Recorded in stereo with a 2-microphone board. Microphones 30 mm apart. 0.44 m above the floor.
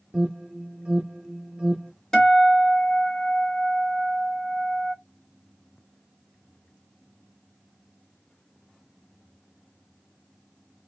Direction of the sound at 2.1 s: 20° left (ahead or behind).